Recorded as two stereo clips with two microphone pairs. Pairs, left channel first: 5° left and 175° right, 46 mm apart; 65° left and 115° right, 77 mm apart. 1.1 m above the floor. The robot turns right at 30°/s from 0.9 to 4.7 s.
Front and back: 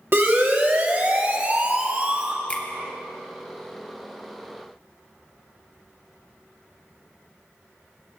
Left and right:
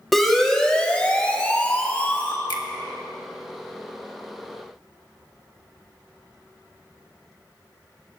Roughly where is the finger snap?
Ahead left.